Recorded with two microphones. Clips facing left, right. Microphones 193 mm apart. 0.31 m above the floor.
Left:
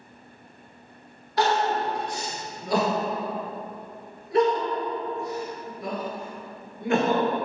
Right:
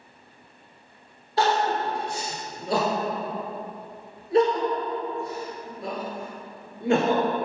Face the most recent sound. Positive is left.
turn(degrees=-30)  # may be behind; listen again after turning